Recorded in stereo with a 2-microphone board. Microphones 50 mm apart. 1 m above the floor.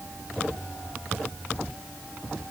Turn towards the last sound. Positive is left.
No sound to turn to.